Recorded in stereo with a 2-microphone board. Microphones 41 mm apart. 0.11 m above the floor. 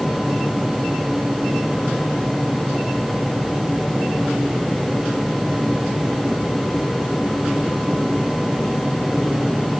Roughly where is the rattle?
I don't hear a rattle.